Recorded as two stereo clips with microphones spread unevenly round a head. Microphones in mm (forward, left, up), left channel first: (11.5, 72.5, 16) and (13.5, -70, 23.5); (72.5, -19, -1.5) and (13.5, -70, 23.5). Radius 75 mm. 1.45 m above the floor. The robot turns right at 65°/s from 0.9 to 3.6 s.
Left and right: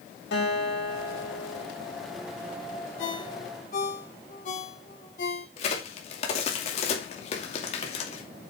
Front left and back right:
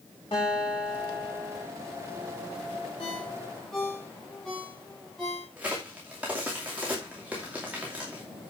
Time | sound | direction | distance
0.3 | a guitar | 105° left | 5.5 m
3.0 | a ringtone | 95° left | 2.5 m
5.6 | a crack | 140° left | 2.5 m